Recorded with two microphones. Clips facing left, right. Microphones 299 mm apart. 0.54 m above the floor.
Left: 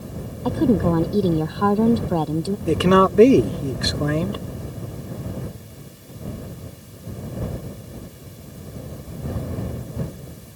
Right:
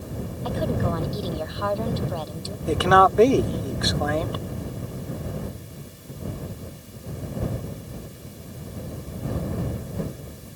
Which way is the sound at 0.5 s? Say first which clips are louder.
Left 9 dB; 55° left (ahead or behind).